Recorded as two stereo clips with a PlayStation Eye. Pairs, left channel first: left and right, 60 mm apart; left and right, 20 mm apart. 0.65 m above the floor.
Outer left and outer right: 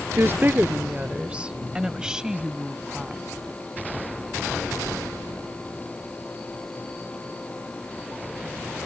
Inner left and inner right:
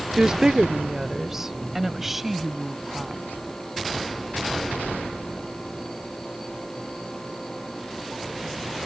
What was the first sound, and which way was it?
A woman speaking, 45° right (ahead or behind).